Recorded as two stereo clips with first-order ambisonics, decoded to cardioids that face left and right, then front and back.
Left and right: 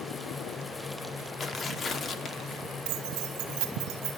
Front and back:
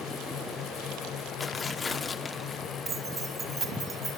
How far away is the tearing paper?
About 1.0 m.